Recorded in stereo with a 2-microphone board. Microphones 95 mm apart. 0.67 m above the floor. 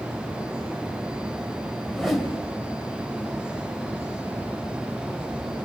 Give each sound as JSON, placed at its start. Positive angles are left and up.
{"t": 1.9, "sound": "a whoosh", "side_deg": 0, "distance_m": 3.0}